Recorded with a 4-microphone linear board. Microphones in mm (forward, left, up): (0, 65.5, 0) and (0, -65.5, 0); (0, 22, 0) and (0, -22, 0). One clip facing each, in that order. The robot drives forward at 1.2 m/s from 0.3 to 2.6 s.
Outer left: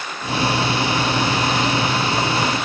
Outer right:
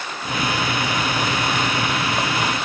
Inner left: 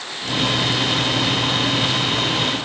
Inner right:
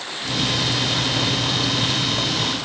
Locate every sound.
Only background noise.